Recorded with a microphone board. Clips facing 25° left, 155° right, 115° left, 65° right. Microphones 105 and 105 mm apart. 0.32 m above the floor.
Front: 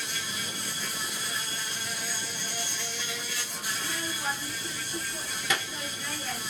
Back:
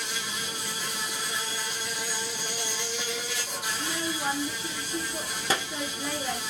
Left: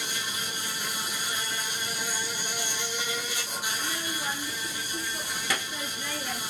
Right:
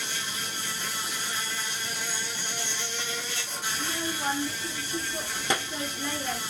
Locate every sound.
0.0 s an insect: 170° right, 1.5 m
3.7 s a child speaking: 115° right, 0.8 m